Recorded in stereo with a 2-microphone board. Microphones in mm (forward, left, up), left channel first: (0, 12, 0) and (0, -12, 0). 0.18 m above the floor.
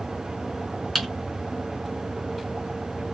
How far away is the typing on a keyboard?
About 1.7 m.